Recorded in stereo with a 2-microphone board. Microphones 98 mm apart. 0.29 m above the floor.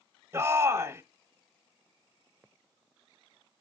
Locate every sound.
0.3 s a shout: 25° right (ahead or behind), 0.9 m